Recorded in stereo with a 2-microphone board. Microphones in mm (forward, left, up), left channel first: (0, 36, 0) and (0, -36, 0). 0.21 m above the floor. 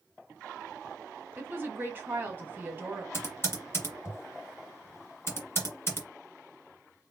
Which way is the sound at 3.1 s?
35° left (ahead or behind).